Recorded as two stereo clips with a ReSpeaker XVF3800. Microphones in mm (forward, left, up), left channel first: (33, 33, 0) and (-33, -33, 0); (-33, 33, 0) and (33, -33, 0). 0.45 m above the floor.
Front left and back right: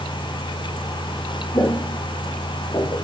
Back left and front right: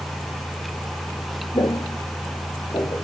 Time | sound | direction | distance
1.5 | footsteps | 105° left | 1.6 m